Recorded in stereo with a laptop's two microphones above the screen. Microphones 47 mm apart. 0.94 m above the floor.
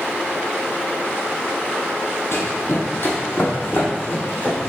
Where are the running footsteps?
55° left (ahead or behind), 2 m; by 4.7 s 40° left (ahead or behind), 4 m.